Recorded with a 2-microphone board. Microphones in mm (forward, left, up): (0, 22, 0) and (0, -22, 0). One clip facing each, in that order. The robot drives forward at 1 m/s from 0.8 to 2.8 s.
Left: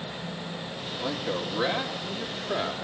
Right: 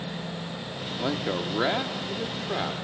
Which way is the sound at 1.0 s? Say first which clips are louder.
Right 2 dB; 20° right (ahead or behind).